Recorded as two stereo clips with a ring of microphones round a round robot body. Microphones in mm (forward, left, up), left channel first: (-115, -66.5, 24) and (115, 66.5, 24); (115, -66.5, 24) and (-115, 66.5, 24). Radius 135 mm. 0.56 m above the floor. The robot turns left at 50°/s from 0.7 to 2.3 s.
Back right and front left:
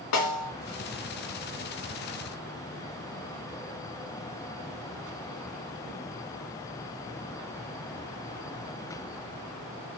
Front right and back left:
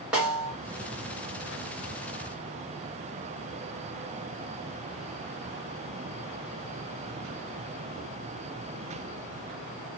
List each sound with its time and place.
0.1 s a snare drum: 125° right, 0.9 m